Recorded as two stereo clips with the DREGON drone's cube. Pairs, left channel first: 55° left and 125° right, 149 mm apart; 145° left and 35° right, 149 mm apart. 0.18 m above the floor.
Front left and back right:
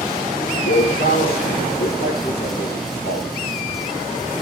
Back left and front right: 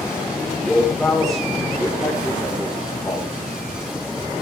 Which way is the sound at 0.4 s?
60° left.